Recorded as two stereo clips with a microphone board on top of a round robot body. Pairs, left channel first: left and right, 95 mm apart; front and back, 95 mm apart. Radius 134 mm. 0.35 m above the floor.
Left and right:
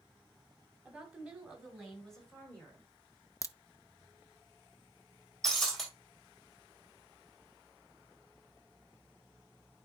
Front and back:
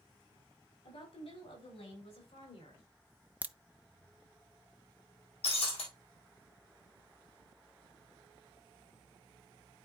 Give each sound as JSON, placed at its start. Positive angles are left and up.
{"t": 0.8, "sound": "a woman speaking", "azimuth_deg": -10, "distance_m": 4.5}
{"t": 3.4, "sound": "a crack", "azimuth_deg": 115, "distance_m": 0.7}
{"t": 5.4, "sound": "breaking glass", "azimuth_deg": 0, "distance_m": 4.0}